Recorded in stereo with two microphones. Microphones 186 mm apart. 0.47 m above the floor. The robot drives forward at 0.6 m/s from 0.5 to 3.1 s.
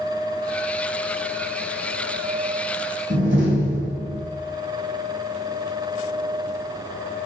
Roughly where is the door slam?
Right.